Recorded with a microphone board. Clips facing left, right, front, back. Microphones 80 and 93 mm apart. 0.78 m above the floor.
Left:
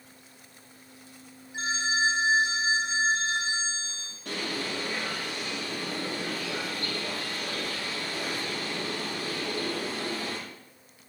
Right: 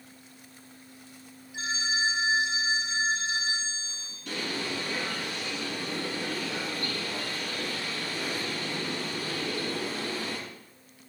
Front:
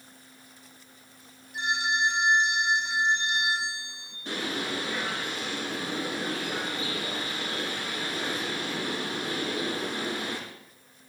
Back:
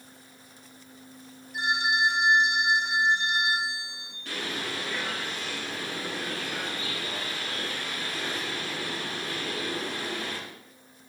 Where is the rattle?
I don't hear a rattle.